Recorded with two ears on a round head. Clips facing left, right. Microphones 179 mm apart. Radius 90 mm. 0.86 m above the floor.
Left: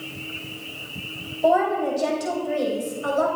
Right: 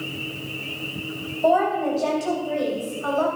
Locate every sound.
1.4 s a woman speaking: 10° left (ahead or behind), 3.5 m; by 3.3 s 35° left (ahead or behind), 3.5 m